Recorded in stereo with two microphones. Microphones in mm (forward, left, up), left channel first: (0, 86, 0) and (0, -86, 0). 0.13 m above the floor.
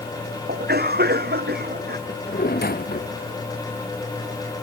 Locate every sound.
0.5 s a cough: 75° right (ahead or behind)
2.1 s a drawer: 70° left (ahead or behind)